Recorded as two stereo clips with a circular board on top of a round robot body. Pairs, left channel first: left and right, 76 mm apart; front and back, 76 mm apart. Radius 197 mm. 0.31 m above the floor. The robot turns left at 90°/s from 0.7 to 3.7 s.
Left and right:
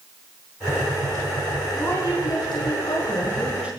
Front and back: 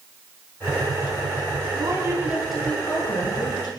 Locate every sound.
1.7 s a woman speaking: 155° left, 8 m; by 3.7 s 20° right, 8 m